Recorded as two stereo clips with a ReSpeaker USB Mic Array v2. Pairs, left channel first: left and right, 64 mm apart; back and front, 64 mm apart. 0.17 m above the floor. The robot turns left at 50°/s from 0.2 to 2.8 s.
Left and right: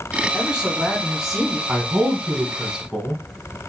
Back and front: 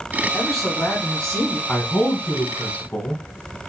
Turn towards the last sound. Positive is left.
turn(degrees=-165)